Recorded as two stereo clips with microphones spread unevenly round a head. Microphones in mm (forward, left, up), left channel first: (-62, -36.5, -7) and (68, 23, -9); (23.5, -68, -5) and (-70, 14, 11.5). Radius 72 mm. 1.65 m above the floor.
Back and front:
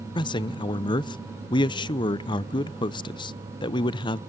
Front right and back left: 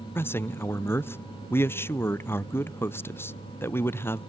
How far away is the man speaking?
About 0.6 m.